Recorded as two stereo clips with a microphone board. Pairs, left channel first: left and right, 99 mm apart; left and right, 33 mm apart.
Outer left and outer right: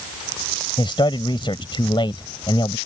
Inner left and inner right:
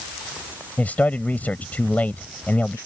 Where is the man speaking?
55° left (ahead or behind).